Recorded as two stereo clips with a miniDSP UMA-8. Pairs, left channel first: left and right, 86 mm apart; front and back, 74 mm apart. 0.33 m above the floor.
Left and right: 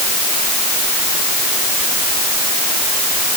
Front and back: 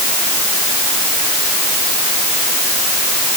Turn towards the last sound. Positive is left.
No sound to turn to.